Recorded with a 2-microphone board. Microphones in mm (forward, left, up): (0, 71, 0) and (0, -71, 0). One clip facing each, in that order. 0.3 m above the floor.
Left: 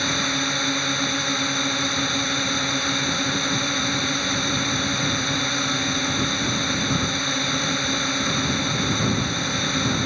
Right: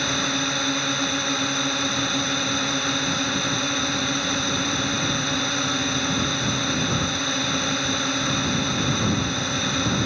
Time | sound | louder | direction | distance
0.0 | a drone | even | 5° right (ahead or behind) | ?